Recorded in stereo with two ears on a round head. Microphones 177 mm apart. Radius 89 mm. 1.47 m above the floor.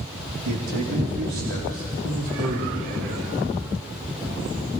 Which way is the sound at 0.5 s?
85° right.